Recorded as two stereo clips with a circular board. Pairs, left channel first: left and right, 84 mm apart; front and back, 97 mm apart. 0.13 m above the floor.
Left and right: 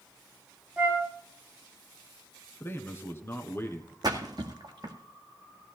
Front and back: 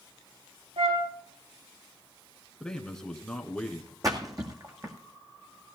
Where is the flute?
160° right, 3.5 m.